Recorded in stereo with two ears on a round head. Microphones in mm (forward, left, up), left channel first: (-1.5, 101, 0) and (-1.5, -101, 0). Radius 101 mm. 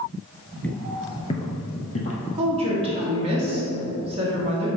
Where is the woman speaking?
25° right (ahead or behind), 1.6 m.